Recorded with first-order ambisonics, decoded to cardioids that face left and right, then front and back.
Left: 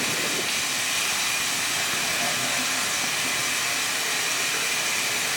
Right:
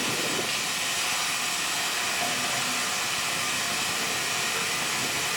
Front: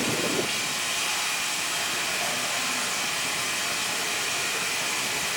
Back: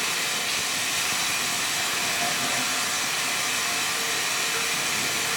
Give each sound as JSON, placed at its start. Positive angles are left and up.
{"t": 0.0, "sound": "running water", "azimuth_deg": 130, "distance_m": 4.5}